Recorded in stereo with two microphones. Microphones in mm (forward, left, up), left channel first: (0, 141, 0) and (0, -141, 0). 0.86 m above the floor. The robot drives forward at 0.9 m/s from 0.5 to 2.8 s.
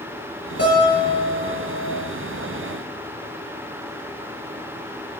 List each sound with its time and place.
0.6 s a guitar: 55° left (ahead or behind), 9.5 m; by 2.0 s 65° left (ahead or behind), 8.5 m